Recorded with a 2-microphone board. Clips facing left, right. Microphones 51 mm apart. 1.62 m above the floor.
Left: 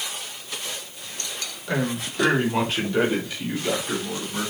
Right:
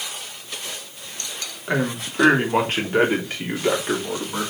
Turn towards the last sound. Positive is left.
turn(degrees=-55)  # may be behind; listen again after turning